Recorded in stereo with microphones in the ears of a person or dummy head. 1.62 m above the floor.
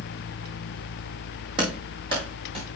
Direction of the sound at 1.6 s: 30° right (ahead or behind).